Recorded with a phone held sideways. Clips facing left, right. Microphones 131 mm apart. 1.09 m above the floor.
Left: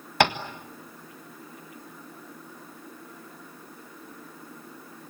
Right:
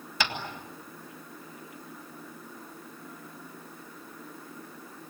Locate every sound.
0.2 s tapping: 60° left (ahead or behind), 1.6 m